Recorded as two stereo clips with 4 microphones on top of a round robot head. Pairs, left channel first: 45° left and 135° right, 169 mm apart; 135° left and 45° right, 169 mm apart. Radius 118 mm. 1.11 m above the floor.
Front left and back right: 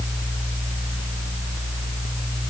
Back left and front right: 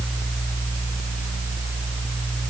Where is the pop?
I don't hear a pop.